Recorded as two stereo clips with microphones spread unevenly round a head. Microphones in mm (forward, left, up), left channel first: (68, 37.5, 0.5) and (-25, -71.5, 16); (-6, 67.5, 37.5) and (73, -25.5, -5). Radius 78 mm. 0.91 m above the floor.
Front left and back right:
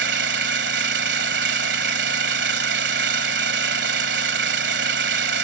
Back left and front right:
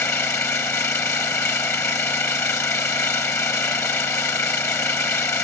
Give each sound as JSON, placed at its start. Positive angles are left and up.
{"t": 0.0, "sound": "an engine running", "azimuth_deg": -155}